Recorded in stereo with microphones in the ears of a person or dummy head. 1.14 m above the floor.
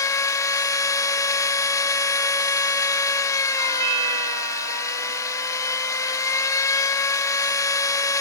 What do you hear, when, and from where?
0.0 s a machine running: 15° left (ahead or behind), 0.7 m
3.6 s a doorbell: 30° right (ahead or behind), 3.5 m